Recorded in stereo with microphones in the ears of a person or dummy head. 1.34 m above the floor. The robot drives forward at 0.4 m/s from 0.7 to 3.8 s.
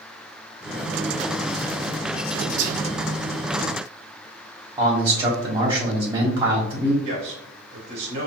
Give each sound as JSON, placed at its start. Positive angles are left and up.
{"t": 2.6, "sound": "whispering", "side_deg": -70, "distance_m": 0.5}
{"t": 4.8, "sound": "a man speaking", "side_deg": -20, "distance_m": 1.4}
{"t": 7.0, "sound": "a man speaking", "side_deg": -25, "distance_m": 1.1}